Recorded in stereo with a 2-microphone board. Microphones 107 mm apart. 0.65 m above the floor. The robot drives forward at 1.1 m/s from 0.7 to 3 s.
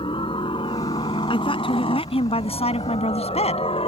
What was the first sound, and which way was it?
A helicopter, 50° left (ahead or behind).